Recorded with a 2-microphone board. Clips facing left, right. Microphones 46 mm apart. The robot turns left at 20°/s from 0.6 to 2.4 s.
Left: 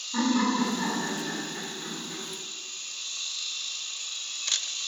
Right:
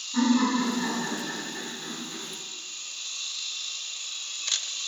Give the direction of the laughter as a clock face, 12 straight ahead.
9 o'clock.